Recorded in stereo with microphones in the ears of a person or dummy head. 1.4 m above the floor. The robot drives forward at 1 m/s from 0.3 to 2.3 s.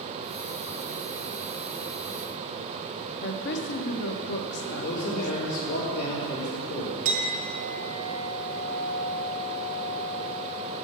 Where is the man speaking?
80° left, 2.5 m.